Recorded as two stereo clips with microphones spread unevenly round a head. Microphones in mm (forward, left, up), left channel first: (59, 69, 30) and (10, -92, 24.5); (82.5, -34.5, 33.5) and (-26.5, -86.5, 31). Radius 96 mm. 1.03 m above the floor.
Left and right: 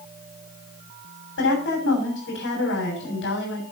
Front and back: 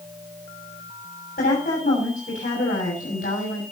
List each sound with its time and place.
1.4 s a woman speaking: 65° left, 7.5 m